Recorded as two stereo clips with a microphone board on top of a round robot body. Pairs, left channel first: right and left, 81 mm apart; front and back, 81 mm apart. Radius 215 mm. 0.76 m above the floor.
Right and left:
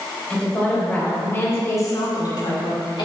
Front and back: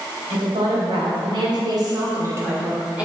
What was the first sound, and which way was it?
A woman speaking, 170° right.